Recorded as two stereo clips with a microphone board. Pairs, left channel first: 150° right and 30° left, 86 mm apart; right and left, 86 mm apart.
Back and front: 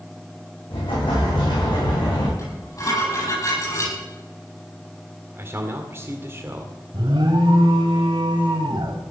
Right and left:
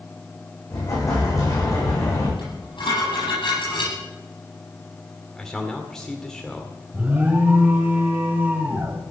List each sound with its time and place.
0.7 s an explosion: 140° right, 9 m
2.4 s dishes clattering: 100° right, 9.5 m
5.4 s a man speaking: 10° right, 1.7 m
6.9 s an alarm: 25° left, 2.5 m